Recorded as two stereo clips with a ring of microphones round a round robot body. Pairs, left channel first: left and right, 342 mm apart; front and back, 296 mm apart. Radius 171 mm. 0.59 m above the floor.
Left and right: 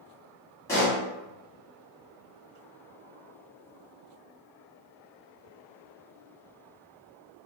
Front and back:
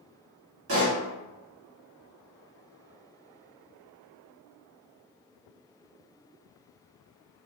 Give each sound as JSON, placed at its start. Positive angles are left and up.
{"t": 0.7, "sound": "a pop", "azimuth_deg": 170, "distance_m": 1.5}